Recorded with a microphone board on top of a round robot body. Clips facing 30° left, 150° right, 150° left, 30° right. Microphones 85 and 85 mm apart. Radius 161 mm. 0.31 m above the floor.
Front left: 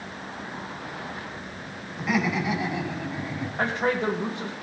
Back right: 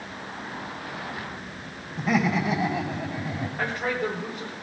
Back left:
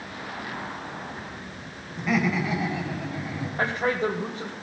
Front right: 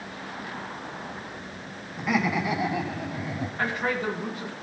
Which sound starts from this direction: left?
A man speaking, at 3.6 s.